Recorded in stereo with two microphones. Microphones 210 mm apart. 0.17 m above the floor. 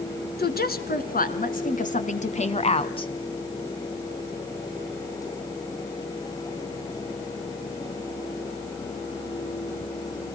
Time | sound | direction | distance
0.4 | a woman speaking | 50° left (ahead or behind) | 2.5 m